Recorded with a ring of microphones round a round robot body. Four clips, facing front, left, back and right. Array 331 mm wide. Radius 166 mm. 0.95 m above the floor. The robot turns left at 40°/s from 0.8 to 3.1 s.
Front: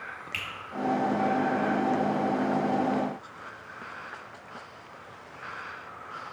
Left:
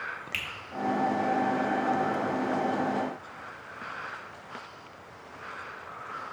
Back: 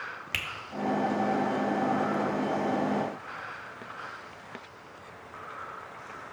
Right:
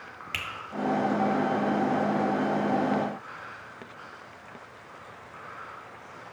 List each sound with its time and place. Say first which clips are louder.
0.3 s a finger snap: right 2 dB, back 2 dB; 155° right, 1.5 m